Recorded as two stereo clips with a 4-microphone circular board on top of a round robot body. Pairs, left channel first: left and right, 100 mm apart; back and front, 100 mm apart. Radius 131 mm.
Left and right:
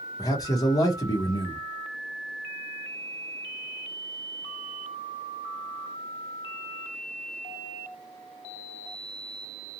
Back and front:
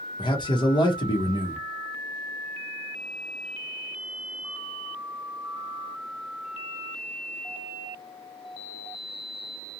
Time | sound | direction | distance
0.2 | a man speaking | 140° left | 0.8 m